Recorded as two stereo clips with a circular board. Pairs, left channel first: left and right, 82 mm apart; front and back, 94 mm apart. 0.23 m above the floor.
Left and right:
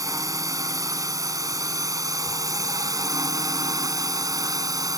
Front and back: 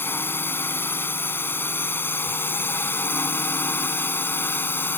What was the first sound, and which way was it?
A drone, 60° right.